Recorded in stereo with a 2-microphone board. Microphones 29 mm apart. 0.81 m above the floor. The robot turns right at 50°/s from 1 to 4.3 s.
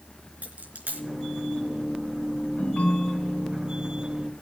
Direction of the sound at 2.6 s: 110° left.